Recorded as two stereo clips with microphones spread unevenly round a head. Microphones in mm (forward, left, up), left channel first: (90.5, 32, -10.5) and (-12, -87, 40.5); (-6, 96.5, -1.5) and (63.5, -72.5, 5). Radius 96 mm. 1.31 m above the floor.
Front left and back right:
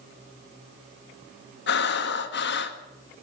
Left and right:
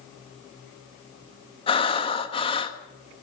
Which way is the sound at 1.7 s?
50° left.